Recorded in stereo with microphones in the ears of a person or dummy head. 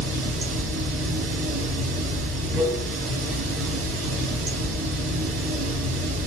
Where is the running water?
65° right (ahead or behind), 2 m.